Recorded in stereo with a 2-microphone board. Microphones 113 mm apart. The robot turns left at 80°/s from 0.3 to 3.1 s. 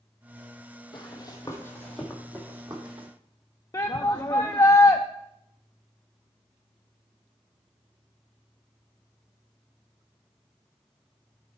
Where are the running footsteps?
45° left (ahead or behind), 1.6 m; by 3.1 s 55° right (ahead or behind), 2 m.